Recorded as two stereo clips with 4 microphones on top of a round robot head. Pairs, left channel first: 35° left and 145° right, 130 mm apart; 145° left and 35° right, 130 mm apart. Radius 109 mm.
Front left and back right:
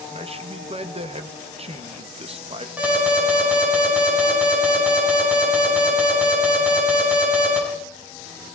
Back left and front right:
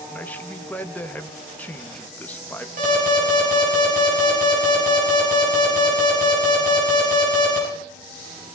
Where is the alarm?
65° right, 6 m.